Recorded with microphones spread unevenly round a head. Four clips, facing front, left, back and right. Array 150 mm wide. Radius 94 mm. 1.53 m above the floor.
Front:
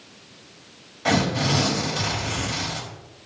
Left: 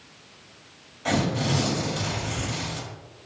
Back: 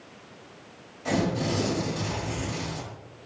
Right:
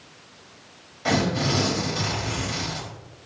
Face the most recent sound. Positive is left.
turn(degrees=-20)